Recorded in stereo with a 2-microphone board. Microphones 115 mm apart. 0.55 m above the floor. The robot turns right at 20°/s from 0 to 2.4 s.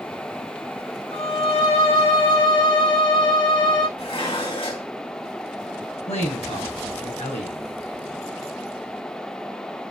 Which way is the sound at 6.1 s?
70° left (ahead or behind).